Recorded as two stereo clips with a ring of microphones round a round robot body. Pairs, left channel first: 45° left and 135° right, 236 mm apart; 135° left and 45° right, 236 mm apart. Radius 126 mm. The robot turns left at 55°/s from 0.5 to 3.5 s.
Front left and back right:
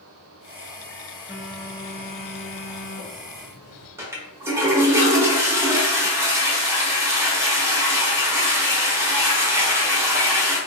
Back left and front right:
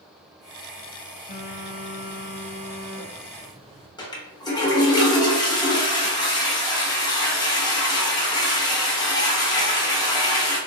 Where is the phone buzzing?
140° left, 1.0 m; by 3.9 s 20° left, 1.0 m.